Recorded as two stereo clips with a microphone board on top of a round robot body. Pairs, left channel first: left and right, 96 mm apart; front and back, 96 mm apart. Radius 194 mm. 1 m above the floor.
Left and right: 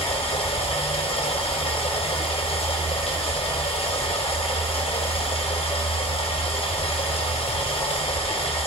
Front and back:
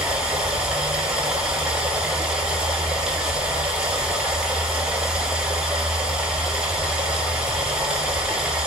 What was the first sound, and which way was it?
Running water, 100° left.